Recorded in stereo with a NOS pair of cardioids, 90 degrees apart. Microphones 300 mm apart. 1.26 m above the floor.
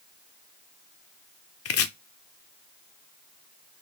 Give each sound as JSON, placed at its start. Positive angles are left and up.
{"t": 1.6, "sound": "chopping", "azimuth_deg": 55, "distance_m": 0.6}